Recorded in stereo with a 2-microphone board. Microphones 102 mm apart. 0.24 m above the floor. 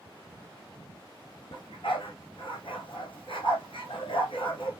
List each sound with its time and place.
1.5 s a dog barking: 60° left (ahead or behind), 2.5 m